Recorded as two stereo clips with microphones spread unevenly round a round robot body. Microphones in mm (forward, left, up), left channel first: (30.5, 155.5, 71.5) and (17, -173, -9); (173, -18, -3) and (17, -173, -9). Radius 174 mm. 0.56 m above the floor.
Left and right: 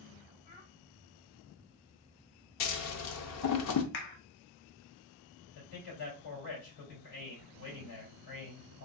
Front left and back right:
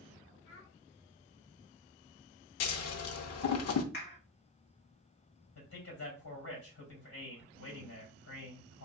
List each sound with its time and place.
0.5 s a child speaking: 75° left, 1.7 m
2.6 s scissors: 40° left, 0.6 m
3.9 s a clap: 85° left, 0.8 m
5.5 s a man speaking: 65° left, 3 m